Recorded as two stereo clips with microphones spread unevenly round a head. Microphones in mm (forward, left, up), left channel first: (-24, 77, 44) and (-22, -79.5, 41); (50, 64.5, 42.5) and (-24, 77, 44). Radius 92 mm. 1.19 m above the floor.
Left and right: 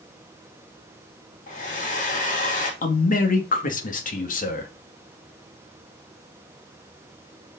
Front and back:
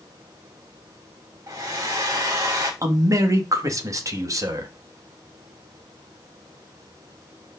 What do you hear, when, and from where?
1.5 s a hair dryer: 130° left, 4.5 m
2.8 s a man speaking: 125° left, 2.5 m